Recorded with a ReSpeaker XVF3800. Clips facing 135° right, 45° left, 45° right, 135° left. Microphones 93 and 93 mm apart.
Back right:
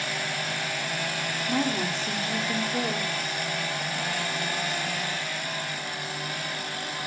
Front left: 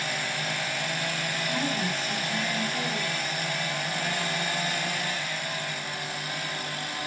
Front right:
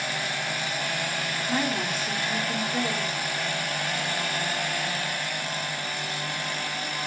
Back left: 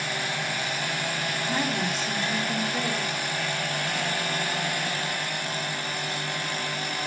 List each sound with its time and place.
1.5 s a woman speaking: 125° right, 3 m